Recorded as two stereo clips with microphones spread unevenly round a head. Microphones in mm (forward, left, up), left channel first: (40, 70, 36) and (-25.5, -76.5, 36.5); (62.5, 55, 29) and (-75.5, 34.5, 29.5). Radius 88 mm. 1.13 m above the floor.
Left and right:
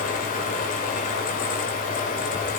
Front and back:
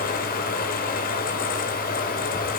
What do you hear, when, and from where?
0.0 s a fan: 25° left, 2.0 m